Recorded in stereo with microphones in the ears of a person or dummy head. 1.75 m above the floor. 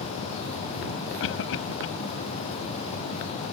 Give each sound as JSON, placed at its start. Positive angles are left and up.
{"t": 1.2, "sound": "a cough", "side_deg": 70}